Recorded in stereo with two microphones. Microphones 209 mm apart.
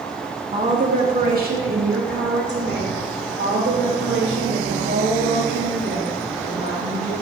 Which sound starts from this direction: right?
A woman speaking, at 0.5 s.